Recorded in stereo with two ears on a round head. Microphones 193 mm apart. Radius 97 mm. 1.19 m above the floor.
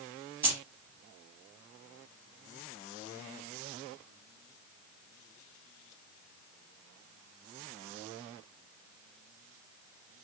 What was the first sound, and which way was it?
Keys jangling, 10° right (ahead or behind).